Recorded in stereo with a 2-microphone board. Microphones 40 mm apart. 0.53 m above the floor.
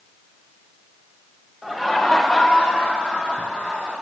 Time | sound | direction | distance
1.6 | laughter | 5° right (ahead or behind) | 1.4 m